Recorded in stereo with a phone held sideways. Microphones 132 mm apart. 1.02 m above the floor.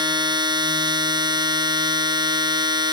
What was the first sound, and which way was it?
A machine running, 35° right (ahead or behind).